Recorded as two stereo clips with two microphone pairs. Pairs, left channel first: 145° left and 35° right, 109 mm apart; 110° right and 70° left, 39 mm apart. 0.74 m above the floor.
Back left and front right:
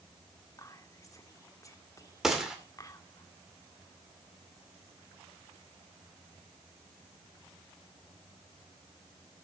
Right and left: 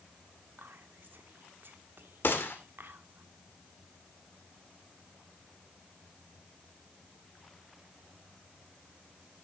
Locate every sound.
0.6 s whispering: 80° left, 1.5 m
2.2 s a gunshot: 120° right, 2 m